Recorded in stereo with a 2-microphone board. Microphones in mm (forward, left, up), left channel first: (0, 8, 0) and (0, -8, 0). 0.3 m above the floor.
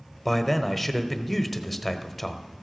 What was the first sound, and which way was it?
A man speaking, 10° left (ahead or behind).